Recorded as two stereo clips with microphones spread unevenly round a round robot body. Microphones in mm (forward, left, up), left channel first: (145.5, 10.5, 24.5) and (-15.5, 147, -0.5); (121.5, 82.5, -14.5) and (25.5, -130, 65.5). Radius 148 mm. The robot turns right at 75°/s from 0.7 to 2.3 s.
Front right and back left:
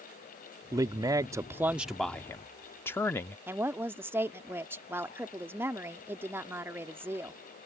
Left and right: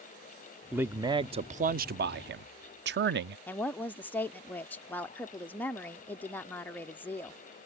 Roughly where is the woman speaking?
Left.